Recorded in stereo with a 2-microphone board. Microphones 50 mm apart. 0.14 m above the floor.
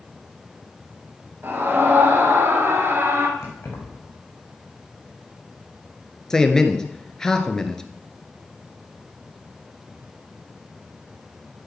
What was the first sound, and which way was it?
A scream, 40° right (ahead or behind).